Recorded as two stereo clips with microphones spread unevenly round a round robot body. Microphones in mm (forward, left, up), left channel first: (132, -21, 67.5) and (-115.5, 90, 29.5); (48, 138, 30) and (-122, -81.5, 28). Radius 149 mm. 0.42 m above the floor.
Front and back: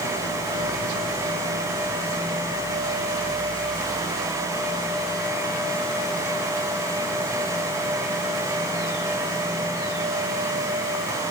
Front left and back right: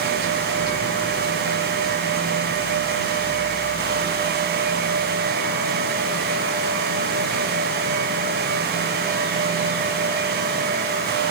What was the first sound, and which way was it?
Only background noise.